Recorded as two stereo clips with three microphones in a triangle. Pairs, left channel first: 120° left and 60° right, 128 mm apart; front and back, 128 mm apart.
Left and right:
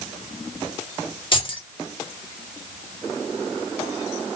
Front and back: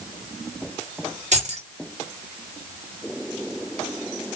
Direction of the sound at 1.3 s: 165° left.